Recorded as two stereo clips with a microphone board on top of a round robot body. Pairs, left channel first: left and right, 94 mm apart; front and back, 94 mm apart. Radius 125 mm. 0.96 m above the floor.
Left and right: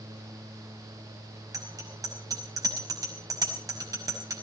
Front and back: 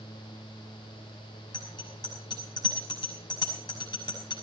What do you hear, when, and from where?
1.5 s a bicycle bell: 40° right, 5.5 m